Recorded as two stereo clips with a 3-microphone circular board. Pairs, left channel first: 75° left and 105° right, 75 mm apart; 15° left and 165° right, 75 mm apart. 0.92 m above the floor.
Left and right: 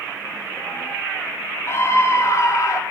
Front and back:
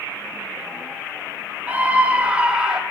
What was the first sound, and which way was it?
A scream, 125° left.